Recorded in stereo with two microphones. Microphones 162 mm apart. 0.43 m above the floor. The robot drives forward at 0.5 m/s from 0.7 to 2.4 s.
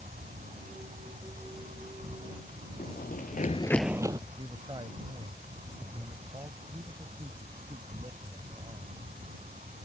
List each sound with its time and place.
0.0 s an insect: 55° right (ahead or behind); by 9.9 s 50° right (ahead or behind)
2.8 s running footsteps: 60° left (ahead or behind); by 4.2 s 25° right (ahead or behind)
4.3 s a man speaking: 30° right (ahead or behind)